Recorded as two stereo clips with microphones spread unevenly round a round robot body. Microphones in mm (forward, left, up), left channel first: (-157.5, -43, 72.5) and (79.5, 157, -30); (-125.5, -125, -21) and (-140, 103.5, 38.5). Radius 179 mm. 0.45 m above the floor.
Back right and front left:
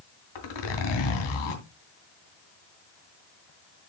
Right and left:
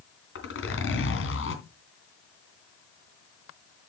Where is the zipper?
115° right, 3 m.